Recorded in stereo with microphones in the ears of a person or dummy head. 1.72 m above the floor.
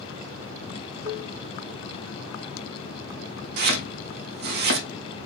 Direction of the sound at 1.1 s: 25° right (ahead or behind).